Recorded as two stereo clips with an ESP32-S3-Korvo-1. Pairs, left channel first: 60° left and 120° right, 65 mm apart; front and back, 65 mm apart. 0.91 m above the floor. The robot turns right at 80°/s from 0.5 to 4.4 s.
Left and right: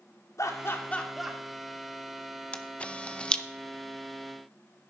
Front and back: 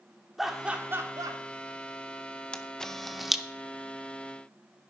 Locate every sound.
0.4 s laughter: 95° left, 2 m; by 1.4 s 165° left, 2 m
2.5 s a camera shutter: 40° left, 0.7 m; by 3.4 s 110° left, 0.7 m